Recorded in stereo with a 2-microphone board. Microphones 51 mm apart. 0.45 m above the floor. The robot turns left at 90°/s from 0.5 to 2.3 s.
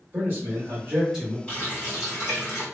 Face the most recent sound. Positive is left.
turn(degrees=80)